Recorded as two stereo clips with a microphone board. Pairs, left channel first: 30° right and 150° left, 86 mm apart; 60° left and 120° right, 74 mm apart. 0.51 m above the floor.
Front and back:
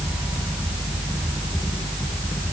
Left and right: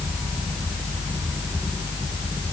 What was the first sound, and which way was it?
Only background noise.